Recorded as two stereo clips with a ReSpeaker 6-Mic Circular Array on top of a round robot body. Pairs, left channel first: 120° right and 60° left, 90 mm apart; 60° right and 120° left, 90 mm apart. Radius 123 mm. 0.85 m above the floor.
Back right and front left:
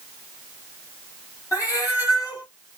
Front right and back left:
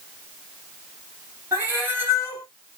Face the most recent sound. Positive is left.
turn(degrees=-175)